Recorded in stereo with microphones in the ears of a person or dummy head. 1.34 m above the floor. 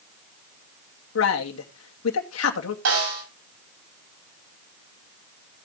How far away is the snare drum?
About 7.5 m.